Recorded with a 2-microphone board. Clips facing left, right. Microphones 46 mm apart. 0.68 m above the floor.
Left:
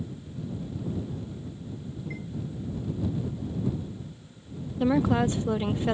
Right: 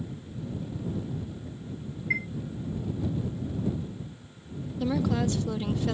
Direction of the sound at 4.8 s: 25° left (ahead or behind).